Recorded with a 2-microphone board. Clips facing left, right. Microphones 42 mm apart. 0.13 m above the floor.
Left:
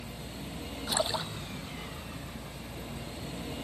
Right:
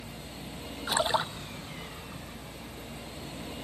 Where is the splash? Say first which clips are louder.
Right 4 dB; 30° right (ahead or behind).